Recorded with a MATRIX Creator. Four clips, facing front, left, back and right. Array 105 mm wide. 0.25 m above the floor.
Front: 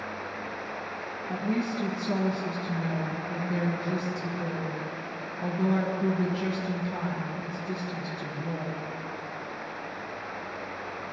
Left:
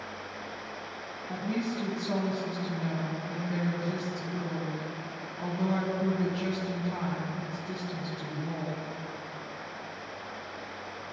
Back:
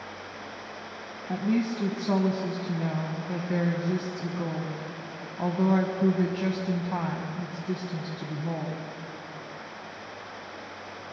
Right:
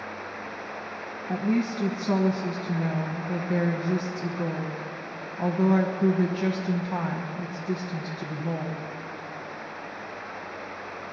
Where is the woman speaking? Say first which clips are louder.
Right 6 dB, back 3 dB; 135° right, 1.4 m.